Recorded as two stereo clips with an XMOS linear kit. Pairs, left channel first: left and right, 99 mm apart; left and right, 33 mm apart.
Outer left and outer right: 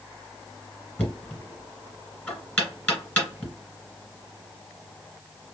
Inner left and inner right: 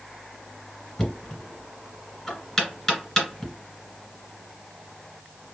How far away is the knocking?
About 1.9 m.